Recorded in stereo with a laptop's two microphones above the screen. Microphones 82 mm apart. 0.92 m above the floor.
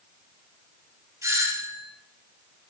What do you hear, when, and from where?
1.2 s a doorbell: 45° right (ahead or behind), 5 m